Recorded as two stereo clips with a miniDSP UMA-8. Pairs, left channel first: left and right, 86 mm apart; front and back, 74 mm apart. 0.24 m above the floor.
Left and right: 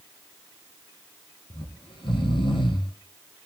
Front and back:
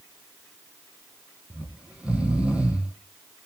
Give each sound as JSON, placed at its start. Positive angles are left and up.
{"t": 1.5, "sound": "snoring", "azimuth_deg": 105, "distance_m": 2.5}